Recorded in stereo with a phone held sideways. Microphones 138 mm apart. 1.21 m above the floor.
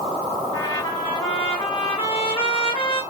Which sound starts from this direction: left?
A trumpet, at 0.5 s.